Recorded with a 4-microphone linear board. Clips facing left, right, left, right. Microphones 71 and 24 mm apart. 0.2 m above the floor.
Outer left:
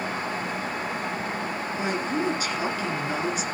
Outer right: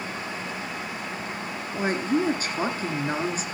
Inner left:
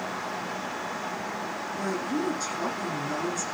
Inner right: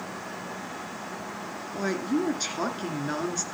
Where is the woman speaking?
40° right (ahead or behind), 2.5 m.